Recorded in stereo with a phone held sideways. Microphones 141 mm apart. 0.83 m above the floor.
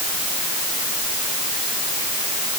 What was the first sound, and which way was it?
Only background noise.